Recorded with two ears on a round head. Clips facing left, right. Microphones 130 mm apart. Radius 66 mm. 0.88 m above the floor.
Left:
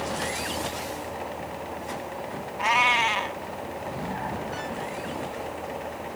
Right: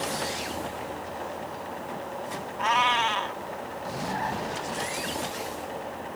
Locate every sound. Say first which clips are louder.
2.6 s a cat meowing: even; 10° left (ahead or behind)